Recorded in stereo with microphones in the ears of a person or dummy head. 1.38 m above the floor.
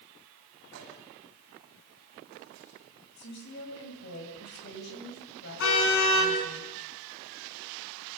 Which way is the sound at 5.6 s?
70° left (ahead or behind).